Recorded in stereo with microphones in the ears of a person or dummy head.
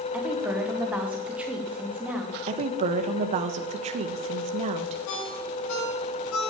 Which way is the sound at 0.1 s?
10° right (ahead or behind).